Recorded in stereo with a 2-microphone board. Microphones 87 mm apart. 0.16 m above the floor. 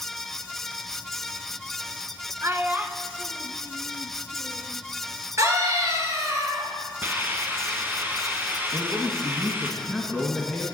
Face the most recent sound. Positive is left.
turn(degrees=0)  # may be behind; listen again after turning